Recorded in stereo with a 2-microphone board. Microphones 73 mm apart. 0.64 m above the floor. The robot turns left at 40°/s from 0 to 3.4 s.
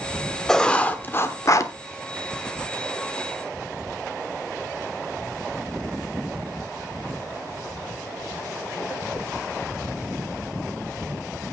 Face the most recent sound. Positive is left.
turn(degrees=55)